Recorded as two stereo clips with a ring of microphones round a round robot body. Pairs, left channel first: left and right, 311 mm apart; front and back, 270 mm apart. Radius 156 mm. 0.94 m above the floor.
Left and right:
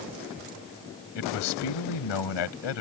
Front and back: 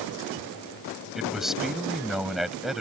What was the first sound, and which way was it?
A man speaking, 90° left.